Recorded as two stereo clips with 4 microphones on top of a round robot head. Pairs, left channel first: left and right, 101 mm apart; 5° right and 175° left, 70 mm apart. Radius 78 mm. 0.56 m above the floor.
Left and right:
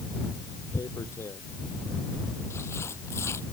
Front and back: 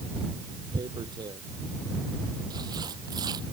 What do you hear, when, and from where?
0.7 s tearing paper: 155° left